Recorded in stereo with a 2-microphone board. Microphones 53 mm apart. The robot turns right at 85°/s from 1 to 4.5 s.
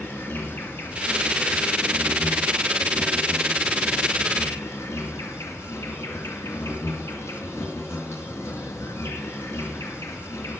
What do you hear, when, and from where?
0.0 s an insect: 130° left, 2 m; by 10.6 s 70° left, 2 m